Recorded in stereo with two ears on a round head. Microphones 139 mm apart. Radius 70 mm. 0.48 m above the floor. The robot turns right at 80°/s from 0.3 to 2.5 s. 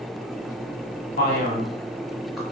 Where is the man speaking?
60° left (ahead or behind), 1.4 m; by 2.4 s centre (ahead or behind), 1.4 m.